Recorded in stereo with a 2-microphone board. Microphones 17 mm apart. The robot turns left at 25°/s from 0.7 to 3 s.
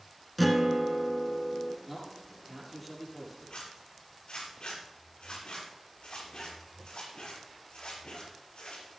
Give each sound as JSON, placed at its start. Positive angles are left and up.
{"t": 0.4, "sound": "a guitar", "side_deg": 0, "distance_m": 1.5}
{"t": 1.9, "sound": "a man speaking", "side_deg": -25, "distance_m": 6.0}
{"t": 3.5, "sound": "a zipper", "side_deg": 80, "distance_m": 7.0}